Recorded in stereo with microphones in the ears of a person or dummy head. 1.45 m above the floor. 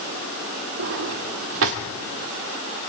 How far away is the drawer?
About 2.5 m.